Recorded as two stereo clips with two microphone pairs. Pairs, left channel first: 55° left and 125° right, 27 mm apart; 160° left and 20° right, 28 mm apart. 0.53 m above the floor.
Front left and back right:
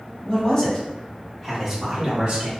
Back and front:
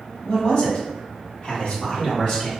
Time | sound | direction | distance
0.2 | a man speaking | 105° left | 1.5 m